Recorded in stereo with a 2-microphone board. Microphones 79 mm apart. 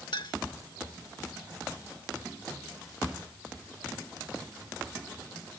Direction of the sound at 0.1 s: 75° left (ahead or behind).